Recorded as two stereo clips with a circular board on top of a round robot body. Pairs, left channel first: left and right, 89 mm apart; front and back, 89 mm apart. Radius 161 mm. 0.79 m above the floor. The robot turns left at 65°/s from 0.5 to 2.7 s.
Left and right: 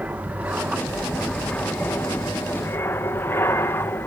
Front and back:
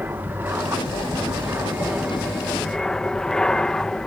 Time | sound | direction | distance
0.0 | an aircraft | 140° right | ?